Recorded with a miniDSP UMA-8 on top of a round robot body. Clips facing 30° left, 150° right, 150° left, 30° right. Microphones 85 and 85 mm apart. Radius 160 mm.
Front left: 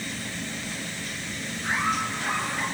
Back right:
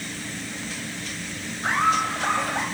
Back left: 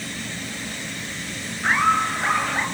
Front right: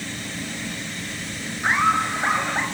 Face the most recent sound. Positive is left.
turn(degrees=-105)